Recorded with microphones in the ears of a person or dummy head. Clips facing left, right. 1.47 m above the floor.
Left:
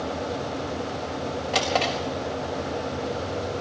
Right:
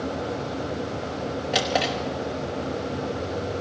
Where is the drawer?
15° right (ahead or behind), 2 m.